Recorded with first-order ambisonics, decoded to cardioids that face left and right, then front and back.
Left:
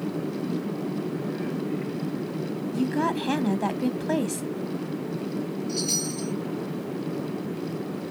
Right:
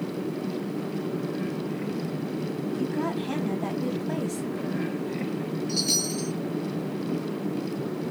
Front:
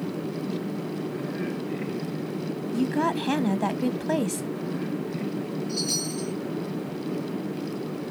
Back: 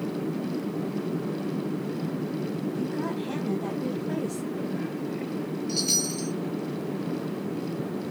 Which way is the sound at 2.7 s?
30° left.